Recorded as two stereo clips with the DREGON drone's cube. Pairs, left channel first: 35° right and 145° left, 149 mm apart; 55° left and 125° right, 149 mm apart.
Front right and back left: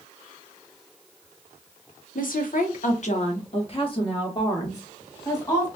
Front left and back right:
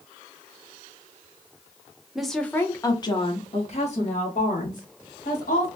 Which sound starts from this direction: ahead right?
A woman speaking, at 2.1 s.